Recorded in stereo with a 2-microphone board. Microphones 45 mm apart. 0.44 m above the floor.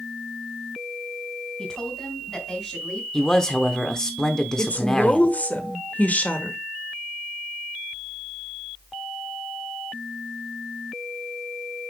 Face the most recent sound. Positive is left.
turn(degrees=40)  # may be behind; listen again after turning